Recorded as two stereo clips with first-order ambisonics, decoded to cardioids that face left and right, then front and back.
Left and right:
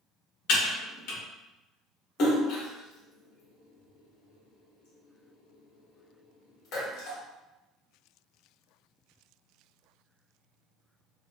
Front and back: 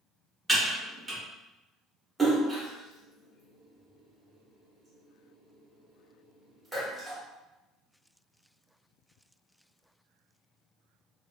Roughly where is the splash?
Left.